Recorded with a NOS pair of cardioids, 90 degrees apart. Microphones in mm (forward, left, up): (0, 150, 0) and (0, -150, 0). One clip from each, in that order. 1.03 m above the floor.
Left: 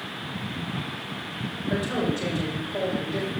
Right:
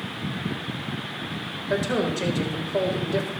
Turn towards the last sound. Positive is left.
turn(degrees=-40)